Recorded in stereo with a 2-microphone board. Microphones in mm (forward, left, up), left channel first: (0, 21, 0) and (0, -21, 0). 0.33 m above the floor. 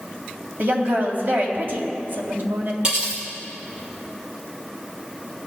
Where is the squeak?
I don't hear a squeak.